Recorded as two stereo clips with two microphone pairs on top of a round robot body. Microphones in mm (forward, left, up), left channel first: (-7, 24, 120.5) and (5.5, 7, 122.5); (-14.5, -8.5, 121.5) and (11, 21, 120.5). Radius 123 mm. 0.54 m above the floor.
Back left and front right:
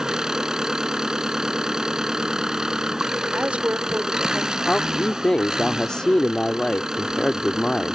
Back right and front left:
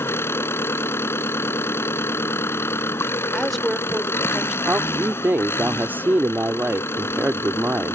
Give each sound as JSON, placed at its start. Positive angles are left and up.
{"t": 0.0, "sound": "an engine running", "azimuth_deg": -115}
{"t": 3.3, "sound": "a woman speaking", "azimuth_deg": -40}
{"t": 4.7, "sound": "a man speaking", "azimuth_deg": 80}